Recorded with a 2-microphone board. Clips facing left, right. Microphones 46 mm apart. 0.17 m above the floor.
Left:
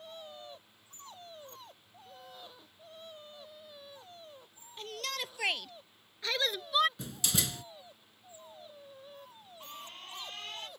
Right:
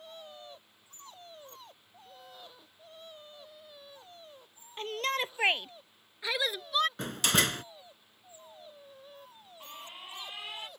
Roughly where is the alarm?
Centre.